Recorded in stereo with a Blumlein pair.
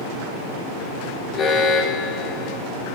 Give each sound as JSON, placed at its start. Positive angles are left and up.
{"t": 1.3, "sound": "an alarm", "azimuth_deg": 25, "distance_m": 2.0}